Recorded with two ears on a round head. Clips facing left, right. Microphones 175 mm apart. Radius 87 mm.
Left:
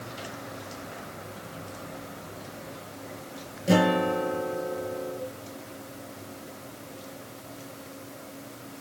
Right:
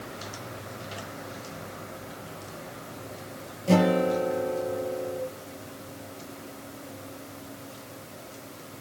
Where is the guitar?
15° left (ahead or behind), 6 m.